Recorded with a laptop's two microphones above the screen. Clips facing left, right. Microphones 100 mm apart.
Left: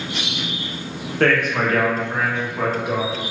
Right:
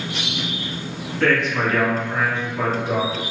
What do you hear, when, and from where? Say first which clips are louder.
1.2 s a man speaking: left 1 dB; 55° left (ahead or behind), 0.8 m; by 3.2 s 5° left (ahead or behind), 1.4 m